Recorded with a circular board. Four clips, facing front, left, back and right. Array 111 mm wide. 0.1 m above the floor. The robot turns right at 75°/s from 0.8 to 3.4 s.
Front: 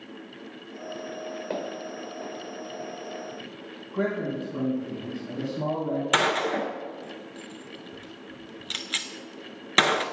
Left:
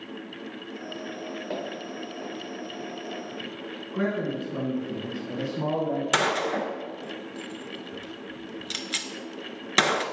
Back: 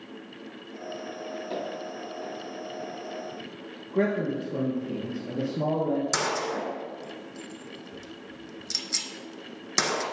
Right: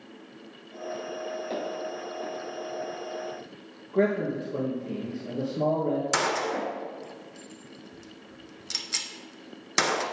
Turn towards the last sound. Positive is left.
turn(degrees=25)